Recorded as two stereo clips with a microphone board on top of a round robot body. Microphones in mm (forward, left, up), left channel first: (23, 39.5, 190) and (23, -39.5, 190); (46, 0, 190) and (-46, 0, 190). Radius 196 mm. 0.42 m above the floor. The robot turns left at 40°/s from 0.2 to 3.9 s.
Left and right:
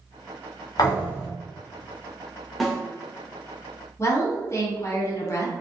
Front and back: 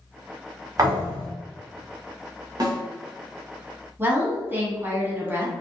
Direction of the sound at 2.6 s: Straight behind.